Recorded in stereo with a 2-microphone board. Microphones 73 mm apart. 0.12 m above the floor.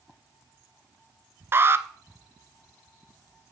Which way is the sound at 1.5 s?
35° right (ahead or behind).